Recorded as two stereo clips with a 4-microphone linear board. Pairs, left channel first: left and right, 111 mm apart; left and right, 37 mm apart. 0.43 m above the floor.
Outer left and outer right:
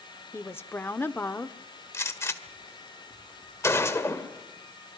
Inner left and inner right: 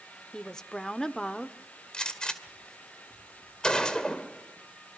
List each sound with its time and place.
0.3 s a woman speaking: 20° left (ahead or behind), 0.7 m
1.9 s a gunshot: 25° left (ahead or behind), 1.8 m